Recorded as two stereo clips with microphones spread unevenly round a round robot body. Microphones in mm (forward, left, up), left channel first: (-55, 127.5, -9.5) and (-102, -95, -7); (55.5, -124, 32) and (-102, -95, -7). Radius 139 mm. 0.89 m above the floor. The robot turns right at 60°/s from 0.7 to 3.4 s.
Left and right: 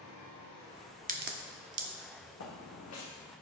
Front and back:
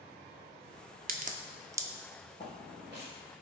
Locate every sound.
1.1 s a crack: 160° right, 1.1 m; by 1.9 s 110° right, 1.1 m
2.4 s footsteps: 50° left, 2.5 m; by 3.0 s 90° left, 2.5 m